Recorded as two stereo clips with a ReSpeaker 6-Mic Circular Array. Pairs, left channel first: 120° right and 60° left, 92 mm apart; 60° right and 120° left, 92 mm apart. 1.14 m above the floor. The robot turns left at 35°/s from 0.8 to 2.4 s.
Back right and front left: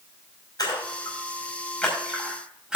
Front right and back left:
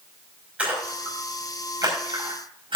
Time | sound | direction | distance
0.6 | a splash | 165° right | 5.5 m